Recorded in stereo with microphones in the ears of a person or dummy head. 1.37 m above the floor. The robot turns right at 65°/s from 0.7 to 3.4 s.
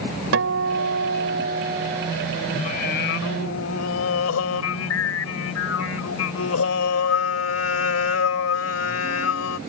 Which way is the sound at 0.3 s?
110° right.